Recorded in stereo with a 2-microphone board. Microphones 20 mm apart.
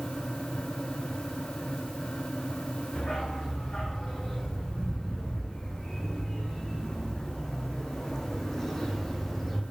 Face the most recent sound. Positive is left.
turn(degrees=10)  # may be behind; listen again after turning